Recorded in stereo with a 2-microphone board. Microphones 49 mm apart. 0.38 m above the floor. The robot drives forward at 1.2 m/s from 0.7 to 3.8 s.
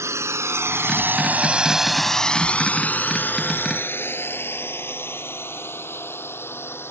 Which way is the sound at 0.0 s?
75° right (ahead or behind).